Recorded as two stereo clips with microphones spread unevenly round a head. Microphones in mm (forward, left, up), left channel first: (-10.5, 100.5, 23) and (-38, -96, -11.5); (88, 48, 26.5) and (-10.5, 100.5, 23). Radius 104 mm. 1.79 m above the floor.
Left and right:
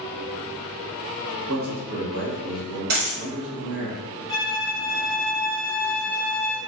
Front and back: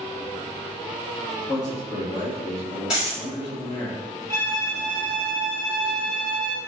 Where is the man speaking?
120° right, 1.4 m.